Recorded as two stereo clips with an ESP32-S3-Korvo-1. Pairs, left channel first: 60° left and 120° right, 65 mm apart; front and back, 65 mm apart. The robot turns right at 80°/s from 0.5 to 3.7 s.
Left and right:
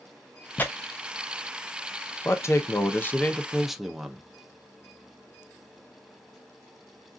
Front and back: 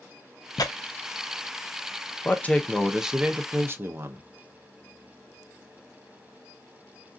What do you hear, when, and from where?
0.6 s tearing paper: 5° right, 0.5 m; by 0.7 s 10° left, 0.5 m
2.2 s a man speaking: 40° left, 0.6 m; by 4.3 s 155° left, 0.6 m